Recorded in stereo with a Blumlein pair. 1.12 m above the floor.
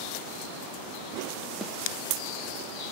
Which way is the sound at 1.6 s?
Straight ahead.